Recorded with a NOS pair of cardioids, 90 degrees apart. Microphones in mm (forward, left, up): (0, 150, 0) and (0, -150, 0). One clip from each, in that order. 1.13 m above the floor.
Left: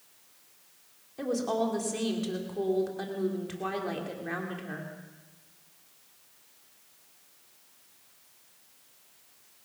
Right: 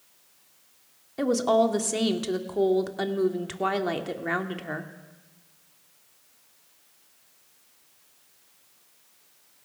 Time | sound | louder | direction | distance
1.2 | a woman speaking | right 8 dB | 55° right | 2.5 m